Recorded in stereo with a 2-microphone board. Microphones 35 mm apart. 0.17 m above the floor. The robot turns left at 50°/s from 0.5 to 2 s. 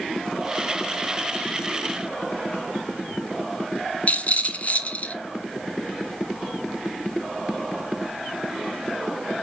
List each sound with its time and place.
4.1 s a rattle: 40° left (ahead or behind), 1.7 m